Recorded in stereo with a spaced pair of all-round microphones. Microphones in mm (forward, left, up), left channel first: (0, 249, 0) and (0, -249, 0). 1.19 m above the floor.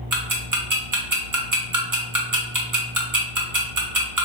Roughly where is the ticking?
Right.